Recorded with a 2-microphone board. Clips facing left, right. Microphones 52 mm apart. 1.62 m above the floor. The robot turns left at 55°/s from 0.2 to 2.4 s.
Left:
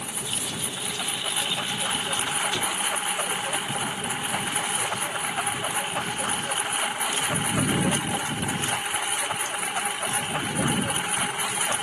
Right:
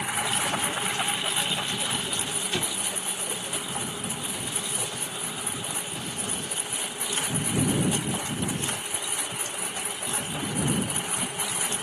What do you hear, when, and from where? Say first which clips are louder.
0.0 s a lawn mower: right 6 dB; 110° right; by 11.8 s 130° left
2.5 s an explosion: left 4 dB; 10° right (ahead or behind)